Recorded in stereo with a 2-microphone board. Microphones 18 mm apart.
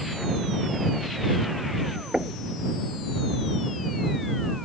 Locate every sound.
2.1 s knocking: 45° right (ahead or behind)